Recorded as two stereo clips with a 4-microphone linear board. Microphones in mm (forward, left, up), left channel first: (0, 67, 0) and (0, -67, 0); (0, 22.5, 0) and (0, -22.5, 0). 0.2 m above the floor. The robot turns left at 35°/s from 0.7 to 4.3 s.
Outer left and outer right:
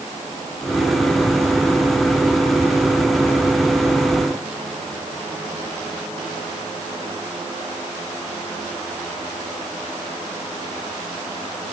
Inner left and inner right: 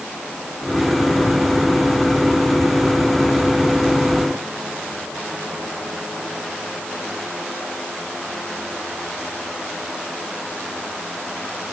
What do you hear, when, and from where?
Only background noise.